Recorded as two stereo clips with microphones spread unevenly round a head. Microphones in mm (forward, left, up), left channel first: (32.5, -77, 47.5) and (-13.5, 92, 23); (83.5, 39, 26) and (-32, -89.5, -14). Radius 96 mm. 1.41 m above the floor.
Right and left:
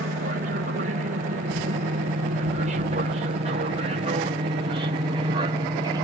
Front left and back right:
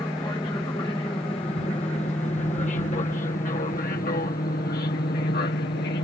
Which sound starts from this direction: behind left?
An aircraft, at 0.0 s.